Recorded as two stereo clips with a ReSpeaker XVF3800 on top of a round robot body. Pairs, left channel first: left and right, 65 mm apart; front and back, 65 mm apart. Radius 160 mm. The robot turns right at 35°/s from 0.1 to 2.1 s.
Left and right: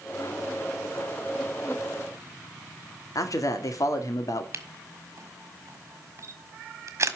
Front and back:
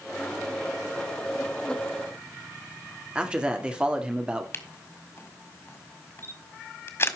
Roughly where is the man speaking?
Left.